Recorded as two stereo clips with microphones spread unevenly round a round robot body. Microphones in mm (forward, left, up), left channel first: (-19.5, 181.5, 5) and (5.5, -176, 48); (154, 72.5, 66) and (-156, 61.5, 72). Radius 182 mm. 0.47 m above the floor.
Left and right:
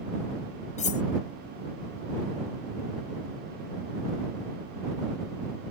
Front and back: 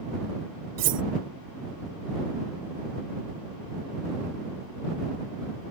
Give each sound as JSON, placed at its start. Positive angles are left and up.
{"t": 0.8, "sound": "cutlery clinking", "azimuth_deg": 165}